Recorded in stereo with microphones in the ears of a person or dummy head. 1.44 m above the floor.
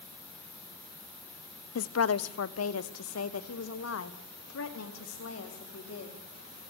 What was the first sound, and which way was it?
A woman speaking, 60° left (ahead or behind).